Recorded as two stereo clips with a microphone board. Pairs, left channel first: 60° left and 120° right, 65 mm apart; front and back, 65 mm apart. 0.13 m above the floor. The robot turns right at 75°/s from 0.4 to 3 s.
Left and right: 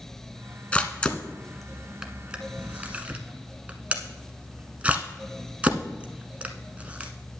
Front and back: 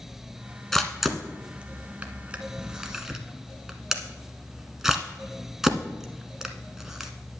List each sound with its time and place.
0.7 s a camera shutter: 80° left, 1.0 m; by 7.1 s 110° right, 1.0 m